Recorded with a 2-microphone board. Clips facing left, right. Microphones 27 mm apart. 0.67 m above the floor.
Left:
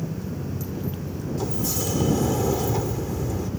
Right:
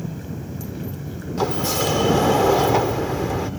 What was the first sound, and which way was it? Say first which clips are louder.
A helicopter: left 1 dB; 40° right (ahead or behind).